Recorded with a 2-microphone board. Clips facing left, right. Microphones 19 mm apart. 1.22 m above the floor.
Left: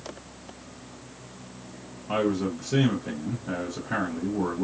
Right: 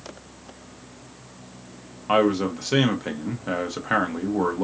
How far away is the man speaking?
About 0.9 m.